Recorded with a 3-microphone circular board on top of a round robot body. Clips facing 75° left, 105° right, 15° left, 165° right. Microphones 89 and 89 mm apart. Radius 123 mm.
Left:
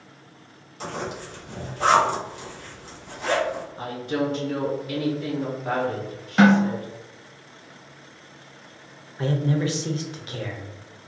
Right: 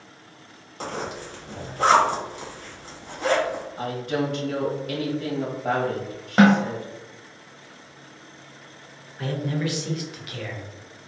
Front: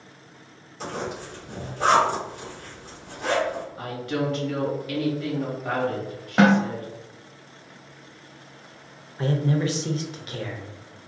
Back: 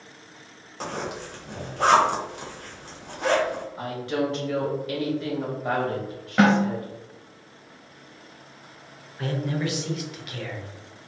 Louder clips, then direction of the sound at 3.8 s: Right 1 dB, back 2 dB; 105° right.